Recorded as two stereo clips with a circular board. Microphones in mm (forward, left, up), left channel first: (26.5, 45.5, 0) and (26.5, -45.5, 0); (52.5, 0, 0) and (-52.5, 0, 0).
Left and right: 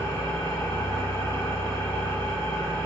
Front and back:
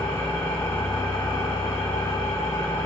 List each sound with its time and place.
0.0 s an engine running: 55° left, 1.1 m